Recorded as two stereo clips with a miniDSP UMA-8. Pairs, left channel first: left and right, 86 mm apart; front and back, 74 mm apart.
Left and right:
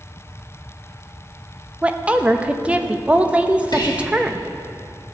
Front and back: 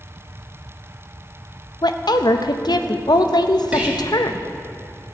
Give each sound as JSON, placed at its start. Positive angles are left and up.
{"t": 1.8, "sound": "a woman speaking", "azimuth_deg": -15, "distance_m": 0.6}
{"t": 3.7, "sound": "whispering", "azimuth_deg": 110, "distance_m": 1.6}